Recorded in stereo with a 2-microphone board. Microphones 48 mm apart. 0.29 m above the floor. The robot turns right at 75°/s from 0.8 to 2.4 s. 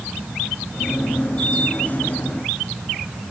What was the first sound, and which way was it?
Only background noise.